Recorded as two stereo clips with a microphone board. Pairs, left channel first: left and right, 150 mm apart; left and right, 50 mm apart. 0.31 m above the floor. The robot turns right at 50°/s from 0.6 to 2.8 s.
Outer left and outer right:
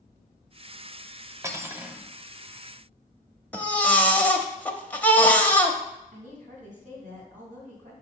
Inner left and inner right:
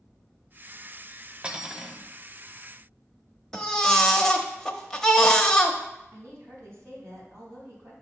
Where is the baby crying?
10° left (ahead or behind), 0.7 m.